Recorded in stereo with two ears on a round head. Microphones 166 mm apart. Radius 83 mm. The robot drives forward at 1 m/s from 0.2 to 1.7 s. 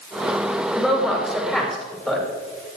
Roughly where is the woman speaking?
Centre.